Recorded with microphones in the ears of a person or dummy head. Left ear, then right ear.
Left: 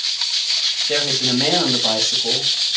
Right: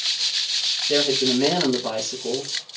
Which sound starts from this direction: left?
A woman speaking, at 0.9 s.